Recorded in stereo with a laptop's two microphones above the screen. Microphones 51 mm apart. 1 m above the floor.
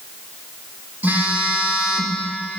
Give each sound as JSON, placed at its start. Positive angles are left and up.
{"t": 1.0, "sound": "a phone buzzing", "side_deg": -35, "distance_m": 1.0}